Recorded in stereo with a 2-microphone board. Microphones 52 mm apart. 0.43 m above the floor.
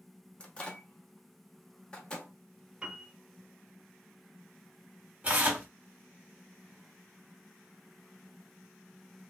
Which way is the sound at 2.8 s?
25° right (ahead or behind).